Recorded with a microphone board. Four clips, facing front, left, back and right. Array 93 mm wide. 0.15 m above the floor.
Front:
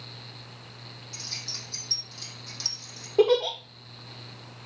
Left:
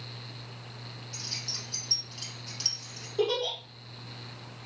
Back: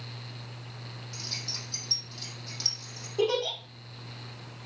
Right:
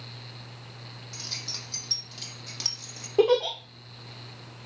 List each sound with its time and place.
1.1 s keys jangling: 80° right, 4.5 m; by 3.1 s 90° right, 3 m
3.2 s a giggle: 50° right, 2.5 m